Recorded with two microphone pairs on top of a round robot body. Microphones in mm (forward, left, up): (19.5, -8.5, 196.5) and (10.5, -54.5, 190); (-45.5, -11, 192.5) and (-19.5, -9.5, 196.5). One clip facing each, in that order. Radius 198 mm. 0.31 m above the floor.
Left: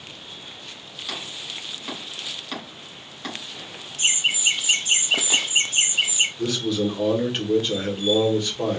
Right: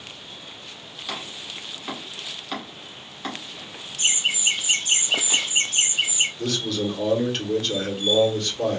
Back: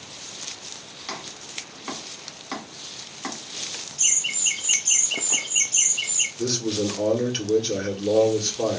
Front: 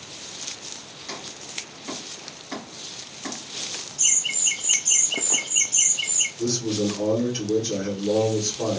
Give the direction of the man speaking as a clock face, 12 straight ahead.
7 o'clock.